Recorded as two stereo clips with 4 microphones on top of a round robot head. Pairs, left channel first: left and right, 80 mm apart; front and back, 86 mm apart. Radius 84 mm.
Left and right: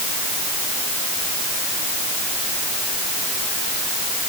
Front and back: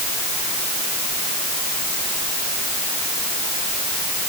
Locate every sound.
Only background noise.